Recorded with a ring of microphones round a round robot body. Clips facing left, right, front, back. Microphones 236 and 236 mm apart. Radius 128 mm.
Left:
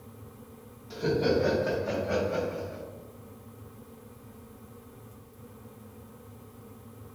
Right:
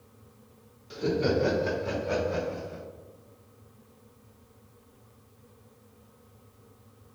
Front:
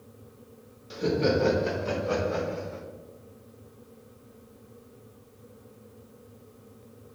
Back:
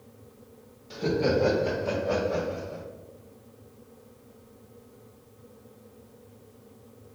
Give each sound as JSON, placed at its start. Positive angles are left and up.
{"t": 0.9, "sound": "laughter", "azimuth_deg": -35, "distance_m": 0.8}